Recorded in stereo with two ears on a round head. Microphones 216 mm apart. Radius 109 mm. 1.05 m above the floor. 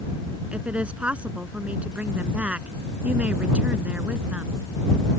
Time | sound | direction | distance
0.5 | a woman speaking | 5° right (ahead or behind) | ?